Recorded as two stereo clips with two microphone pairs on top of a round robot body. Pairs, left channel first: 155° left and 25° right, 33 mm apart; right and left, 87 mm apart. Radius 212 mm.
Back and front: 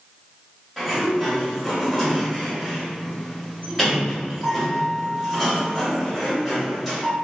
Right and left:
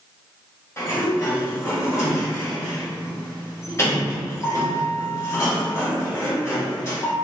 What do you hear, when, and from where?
0.8 s a sliding door: 110° right, 1.7 m